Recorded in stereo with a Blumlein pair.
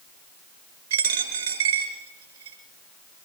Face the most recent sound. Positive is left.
turn(degrees=-65)